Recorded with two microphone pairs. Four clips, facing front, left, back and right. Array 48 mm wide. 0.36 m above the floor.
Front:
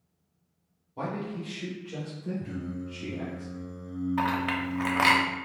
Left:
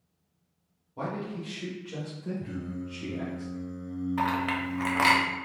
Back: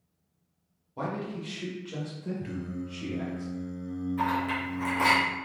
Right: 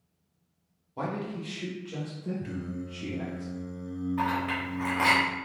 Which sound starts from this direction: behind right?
Singing, at 2.4 s.